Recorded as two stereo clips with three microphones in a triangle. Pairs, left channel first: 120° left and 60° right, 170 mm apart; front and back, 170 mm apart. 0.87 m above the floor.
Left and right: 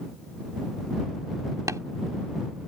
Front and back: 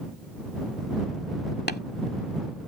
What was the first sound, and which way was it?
Tapping, 10° left.